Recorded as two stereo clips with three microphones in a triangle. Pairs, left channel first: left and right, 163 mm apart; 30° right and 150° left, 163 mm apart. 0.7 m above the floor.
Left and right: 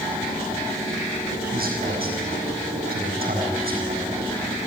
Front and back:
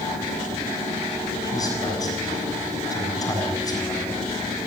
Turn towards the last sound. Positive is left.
turn(degrees=-95)